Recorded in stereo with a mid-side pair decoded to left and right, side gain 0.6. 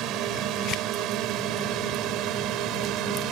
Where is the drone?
65° right.